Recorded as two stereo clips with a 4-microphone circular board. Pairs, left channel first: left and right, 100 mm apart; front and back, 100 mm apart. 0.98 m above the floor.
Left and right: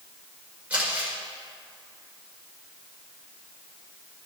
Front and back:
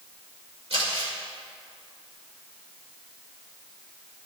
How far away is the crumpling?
About 2 m.